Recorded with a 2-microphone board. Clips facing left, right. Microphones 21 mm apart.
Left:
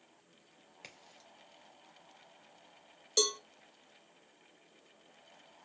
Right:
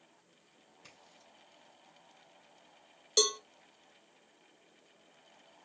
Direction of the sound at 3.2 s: 15° right (ahead or behind).